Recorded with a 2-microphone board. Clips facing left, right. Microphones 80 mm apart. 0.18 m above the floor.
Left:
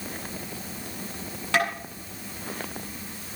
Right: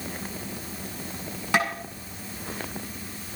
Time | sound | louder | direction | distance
1.5 | tapping | even | 10° right (ahead or behind) | 7 m